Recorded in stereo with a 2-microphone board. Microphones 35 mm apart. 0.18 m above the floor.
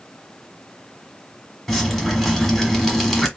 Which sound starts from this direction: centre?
Dripping, at 1.7 s.